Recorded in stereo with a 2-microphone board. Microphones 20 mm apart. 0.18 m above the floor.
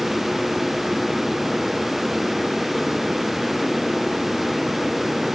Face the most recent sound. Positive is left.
No sound to turn to.